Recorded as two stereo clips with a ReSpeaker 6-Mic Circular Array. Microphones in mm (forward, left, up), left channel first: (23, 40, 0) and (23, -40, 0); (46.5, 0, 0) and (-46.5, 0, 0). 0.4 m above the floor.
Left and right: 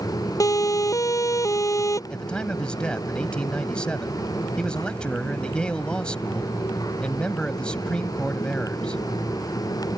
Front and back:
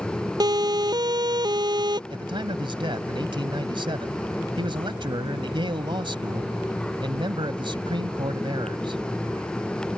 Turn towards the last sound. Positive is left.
turn(degrees=165)